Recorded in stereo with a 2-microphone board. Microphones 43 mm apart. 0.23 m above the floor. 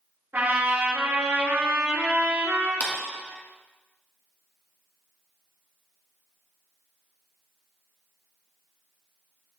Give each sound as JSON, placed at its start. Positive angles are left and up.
{"t": 0.3, "sound": "a trumpet", "side_deg": -50, "distance_m": 3.0}
{"t": 2.8, "sound": "a clap", "side_deg": 40, "distance_m": 1.6}